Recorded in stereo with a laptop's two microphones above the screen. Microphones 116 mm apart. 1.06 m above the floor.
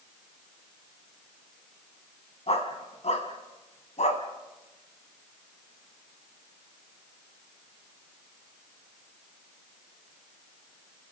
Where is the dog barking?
60° left (ahead or behind), 2.5 m; by 4.2 s 75° left (ahead or behind), 2.5 m.